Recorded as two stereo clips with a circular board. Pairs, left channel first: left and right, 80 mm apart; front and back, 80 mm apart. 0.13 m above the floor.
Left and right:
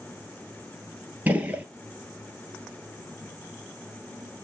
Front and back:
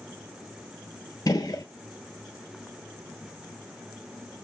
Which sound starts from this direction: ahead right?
A gunshot, at 1.3 s.